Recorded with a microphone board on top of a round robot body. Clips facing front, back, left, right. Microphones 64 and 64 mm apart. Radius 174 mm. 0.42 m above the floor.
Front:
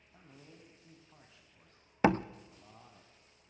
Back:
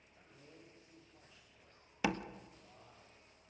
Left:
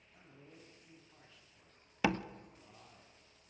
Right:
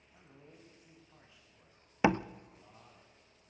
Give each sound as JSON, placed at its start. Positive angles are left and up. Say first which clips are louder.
{"t": 0.1, "sound": "a man speaking", "louder": "front 4 dB, right 1 dB", "azimuth_deg": -15, "distance_m": 4.5}
{"t": 2.0, "sound": "a door slam", "louder": "front 9 dB, right 5 dB", "azimuth_deg": -35, "distance_m": 0.8}